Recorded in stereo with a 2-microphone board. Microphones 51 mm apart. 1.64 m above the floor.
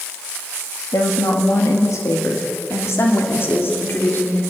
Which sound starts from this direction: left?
A woman speaking, at 0.9 s.